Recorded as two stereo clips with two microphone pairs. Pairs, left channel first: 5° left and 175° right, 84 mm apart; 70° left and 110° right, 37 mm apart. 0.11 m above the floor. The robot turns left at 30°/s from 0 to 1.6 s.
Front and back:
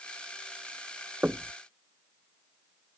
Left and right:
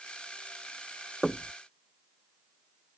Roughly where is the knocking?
Behind left.